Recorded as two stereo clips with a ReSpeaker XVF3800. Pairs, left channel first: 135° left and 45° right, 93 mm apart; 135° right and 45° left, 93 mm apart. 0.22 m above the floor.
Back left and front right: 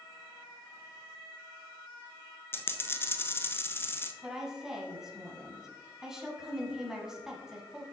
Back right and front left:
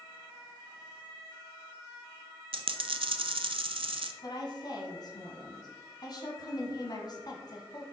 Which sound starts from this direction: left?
A dropped coin, at 2.5 s.